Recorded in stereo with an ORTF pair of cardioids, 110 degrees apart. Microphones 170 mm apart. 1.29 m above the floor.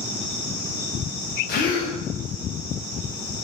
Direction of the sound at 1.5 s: 65° left.